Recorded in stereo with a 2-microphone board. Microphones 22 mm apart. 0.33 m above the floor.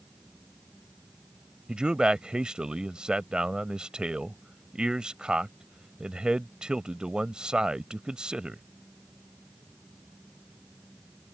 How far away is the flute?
No flute in this recording.